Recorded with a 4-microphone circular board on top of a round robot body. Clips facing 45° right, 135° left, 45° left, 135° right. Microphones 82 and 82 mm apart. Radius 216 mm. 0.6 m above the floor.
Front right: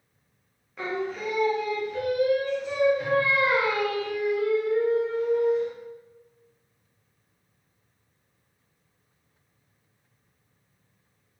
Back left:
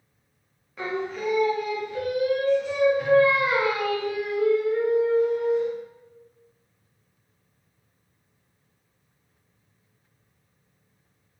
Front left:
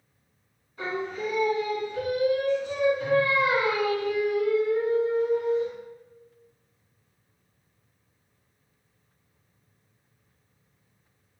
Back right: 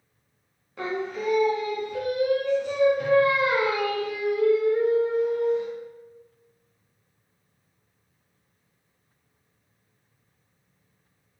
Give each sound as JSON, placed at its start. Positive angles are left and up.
{"t": 0.8, "sound": "singing", "azimuth_deg": -135, "distance_m": 0.7}